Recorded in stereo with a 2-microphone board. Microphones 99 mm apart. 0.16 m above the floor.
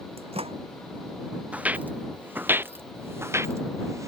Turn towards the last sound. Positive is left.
turn(degrees=-30)  # may be behind; listen again after turning